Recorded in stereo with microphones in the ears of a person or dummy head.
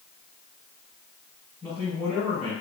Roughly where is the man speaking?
Centre.